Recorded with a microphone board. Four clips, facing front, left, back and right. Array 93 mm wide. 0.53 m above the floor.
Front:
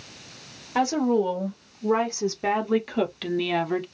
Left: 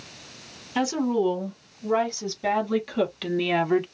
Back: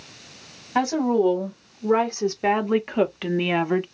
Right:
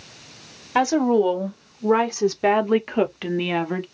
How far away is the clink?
I don't hear a clink.